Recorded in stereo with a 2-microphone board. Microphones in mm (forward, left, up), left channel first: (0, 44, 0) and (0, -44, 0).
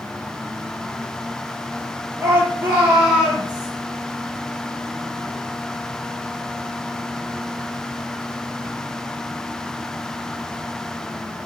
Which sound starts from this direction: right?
A shout, at 2.2 s.